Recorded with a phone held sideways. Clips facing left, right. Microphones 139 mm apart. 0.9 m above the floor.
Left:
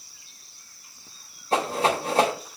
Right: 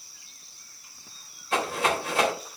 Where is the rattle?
35° left (ahead or behind), 3.5 m.